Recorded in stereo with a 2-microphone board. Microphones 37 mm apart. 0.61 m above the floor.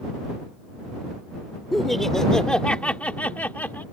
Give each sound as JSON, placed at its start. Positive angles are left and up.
{"t": 1.7, "sound": "laughter", "side_deg": 0}